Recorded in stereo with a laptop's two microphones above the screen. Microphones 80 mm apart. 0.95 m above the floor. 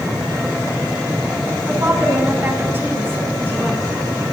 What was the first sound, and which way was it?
A woman speaking, 25° right (ahead or behind).